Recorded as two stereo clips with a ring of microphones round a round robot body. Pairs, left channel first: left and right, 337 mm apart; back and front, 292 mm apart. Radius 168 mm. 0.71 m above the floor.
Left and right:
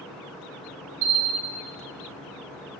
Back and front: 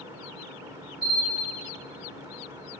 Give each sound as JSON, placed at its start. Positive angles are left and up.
{"t": 1.0, "sound": "a bell", "azimuth_deg": -85, "distance_m": 1.2}